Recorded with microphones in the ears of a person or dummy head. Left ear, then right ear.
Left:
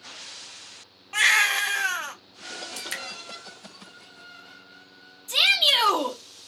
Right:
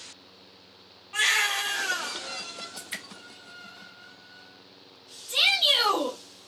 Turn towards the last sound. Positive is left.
turn(degrees=30)  # may be behind; listen again after turning